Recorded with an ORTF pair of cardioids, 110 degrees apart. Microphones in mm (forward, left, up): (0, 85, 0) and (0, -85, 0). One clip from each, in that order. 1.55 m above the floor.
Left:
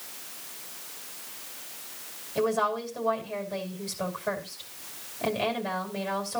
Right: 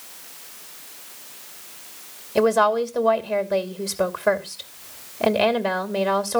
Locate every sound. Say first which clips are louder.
2.4 s a woman speaking: right 9 dB; 70° right, 2.5 m